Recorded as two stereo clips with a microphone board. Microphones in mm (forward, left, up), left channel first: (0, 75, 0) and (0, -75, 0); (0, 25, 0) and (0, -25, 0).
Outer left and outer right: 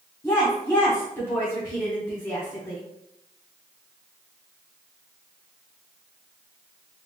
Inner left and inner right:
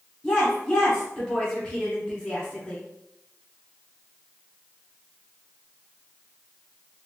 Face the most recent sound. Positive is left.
turn(degrees=15)  # may be behind; listen again after turning